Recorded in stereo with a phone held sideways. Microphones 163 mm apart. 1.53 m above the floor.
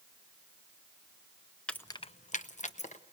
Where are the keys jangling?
5° left (ahead or behind), 0.6 m; by 3.0 s 45° left (ahead or behind), 1.3 m.